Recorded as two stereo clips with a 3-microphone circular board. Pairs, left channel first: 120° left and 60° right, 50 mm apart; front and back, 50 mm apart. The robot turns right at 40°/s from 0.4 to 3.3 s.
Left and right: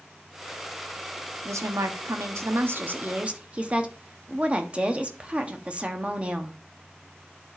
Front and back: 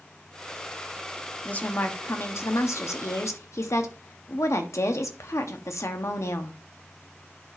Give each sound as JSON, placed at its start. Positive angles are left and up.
{"t": 1.4, "sound": "a woman speaking", "azimuth_deg": -65, "distance_m": 1.2}